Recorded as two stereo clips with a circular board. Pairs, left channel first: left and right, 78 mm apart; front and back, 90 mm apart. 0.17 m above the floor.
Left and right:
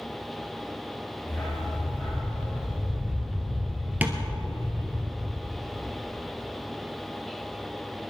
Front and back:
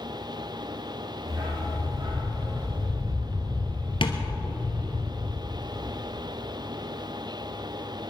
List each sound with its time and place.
1.3 s a dog barking: 160° left, 6 m; by 5.0 s 175° left, 10 m
4.0 s tapping: 20° right, 1.7 m